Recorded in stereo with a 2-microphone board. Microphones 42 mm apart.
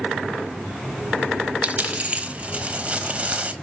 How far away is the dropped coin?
About 1.1 m.